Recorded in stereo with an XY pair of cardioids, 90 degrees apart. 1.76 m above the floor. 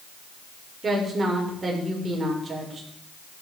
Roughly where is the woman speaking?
Ahead right.